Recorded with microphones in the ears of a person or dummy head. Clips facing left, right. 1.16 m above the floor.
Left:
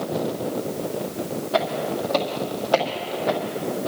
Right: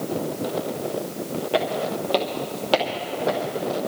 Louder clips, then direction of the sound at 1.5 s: Even; 35° right (ahead or behind).